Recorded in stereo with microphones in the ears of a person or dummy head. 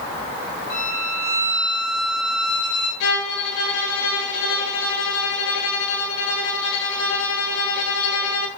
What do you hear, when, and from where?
0.7 s a violin: 50° left (ahead or behind), 8 m
3.0 s a violin: 80° left, 9 m